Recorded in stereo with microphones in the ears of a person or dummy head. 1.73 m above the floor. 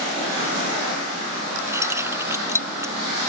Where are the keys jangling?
15° right (ahead or behind).